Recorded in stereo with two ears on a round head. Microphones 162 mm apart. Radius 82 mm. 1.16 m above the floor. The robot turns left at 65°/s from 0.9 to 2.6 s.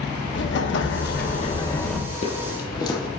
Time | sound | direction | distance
0.3 | an explosion | 75° left | 1.3 m
2.1 | footsteps | 45° left (ahead or behind) | 1.9 m